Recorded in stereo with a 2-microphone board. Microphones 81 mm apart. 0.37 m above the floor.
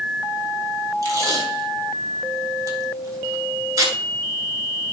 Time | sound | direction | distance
1.0 | tape being pulled | 45° right (ahead or behind) | 2.5 m